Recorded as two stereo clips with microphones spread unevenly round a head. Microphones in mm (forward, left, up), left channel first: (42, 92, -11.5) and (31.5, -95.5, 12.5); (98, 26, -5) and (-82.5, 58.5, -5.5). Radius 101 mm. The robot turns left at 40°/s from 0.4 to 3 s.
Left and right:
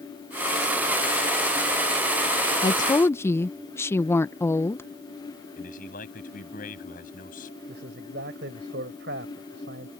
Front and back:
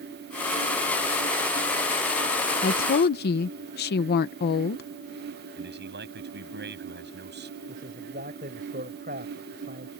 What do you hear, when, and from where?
2.6 s a woman speaking: 20° left; by 4.8 s 5° left
5.6 s a man speaking: 140° left
7.7 s a man speaking: 135° right